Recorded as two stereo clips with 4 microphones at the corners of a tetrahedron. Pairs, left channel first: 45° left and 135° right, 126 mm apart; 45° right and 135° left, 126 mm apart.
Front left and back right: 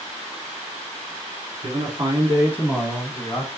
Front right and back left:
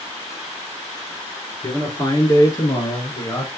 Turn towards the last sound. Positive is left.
turn(degrees=0)